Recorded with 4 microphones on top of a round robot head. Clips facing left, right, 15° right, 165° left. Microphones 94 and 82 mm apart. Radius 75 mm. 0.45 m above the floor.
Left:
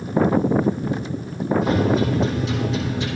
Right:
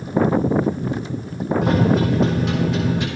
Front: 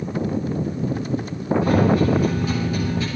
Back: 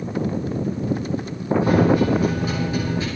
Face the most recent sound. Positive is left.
turn(degrees=-125)